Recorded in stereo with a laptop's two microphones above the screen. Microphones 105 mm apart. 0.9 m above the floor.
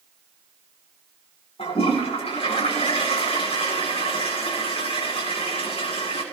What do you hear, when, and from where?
1.6 s a toilet flushing: 70° left (ahead or behind), 8 m